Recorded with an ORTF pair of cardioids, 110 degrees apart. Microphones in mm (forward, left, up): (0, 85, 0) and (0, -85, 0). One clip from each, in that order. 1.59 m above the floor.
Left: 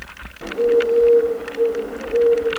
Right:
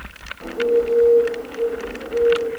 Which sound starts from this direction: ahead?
A bird, at 0.4 s.